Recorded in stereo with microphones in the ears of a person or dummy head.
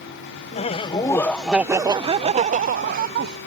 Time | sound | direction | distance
0.5 | laughter | 35° left (ahead or behind) | ?